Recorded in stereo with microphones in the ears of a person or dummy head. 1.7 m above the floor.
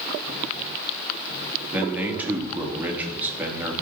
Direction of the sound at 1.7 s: 10° right (ahead or behind).